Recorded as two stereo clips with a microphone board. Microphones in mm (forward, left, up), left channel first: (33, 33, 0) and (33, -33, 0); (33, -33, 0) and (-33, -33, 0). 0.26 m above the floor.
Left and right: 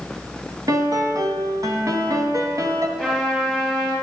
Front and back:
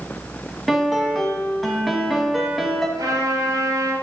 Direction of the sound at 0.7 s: 90° right.